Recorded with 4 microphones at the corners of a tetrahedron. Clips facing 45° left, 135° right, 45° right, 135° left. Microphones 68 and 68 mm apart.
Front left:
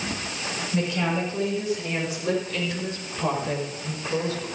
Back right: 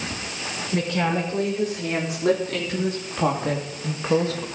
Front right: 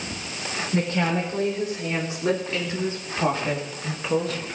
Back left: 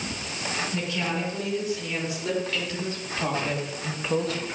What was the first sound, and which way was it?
A woman speaking, 100° right.